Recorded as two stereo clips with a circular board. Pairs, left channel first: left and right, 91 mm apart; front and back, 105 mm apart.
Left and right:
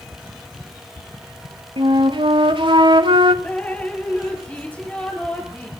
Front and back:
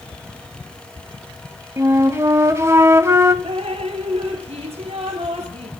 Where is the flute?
115° right, 1.0 m.